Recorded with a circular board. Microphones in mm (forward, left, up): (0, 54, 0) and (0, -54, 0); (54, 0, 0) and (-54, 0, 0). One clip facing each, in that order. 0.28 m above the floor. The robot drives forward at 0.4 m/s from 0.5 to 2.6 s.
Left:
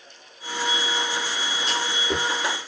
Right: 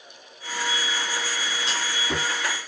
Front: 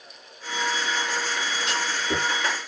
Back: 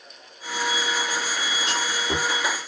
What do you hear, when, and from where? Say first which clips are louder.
1.7 s a clunk: left 4 dB, back 1 dB; 140° right, 2 m; by 2.3 s 145° right, 2.5 m